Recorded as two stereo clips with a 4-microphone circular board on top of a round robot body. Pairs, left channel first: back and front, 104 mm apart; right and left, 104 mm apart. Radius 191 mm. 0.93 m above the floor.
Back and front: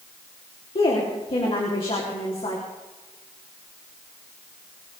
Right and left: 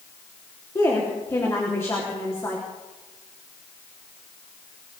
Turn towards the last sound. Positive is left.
turn(degrees=-155)